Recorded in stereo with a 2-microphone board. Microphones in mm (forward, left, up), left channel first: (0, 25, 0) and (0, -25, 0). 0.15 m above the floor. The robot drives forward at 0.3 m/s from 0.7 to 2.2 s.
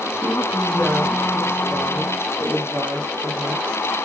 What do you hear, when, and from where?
0.1 s a woman speaking: 35° right (ahead or behind), 4.5 m; by 3.8 s 40° right (ahead or behind), 4 m